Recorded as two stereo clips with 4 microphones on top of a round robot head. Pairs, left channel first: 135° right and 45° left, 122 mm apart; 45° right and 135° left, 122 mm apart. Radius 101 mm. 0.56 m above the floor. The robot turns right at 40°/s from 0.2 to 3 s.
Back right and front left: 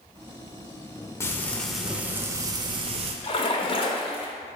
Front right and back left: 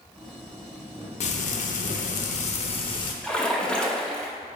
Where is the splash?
125° right, 1.2 m.